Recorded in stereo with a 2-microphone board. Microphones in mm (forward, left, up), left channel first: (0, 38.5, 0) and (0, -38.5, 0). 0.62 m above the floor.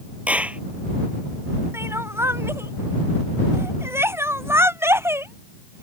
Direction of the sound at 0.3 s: 15° right (ahead or behind).